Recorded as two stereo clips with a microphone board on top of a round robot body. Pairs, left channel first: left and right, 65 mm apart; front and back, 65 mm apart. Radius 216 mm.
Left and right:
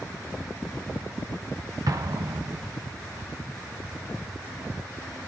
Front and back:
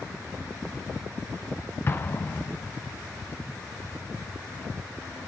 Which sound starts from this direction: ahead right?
An explosion, at 1.9 s.